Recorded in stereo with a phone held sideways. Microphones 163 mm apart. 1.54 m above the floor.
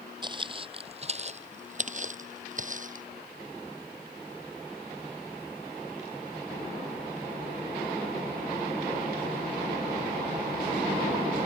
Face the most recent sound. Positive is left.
turn(degrees=-50)  # may be behind; listen again after turning